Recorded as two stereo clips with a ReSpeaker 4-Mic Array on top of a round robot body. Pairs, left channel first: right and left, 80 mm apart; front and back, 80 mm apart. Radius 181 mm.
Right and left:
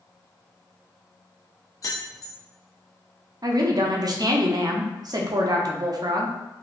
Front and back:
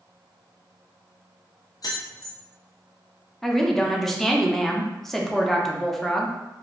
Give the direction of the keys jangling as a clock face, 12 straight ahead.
1 o'clock.